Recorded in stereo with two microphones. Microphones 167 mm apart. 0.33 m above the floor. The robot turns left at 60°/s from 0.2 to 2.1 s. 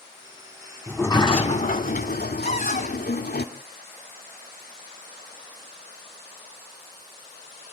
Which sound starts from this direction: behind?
A sliding door, at 0.9 s.